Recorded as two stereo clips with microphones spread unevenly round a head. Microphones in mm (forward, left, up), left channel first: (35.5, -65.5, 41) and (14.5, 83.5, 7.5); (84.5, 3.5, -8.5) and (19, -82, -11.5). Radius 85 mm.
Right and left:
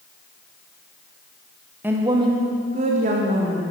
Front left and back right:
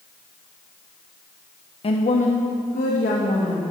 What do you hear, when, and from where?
1.8 s a woman speaking: 20° left, 1.1 m; by 3.6 s 70° left, 2.5 m